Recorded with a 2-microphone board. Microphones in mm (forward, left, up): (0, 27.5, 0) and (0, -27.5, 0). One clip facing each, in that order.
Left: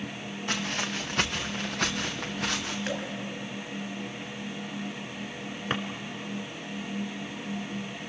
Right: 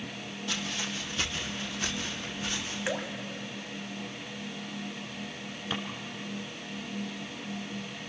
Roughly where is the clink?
No clink in this recording.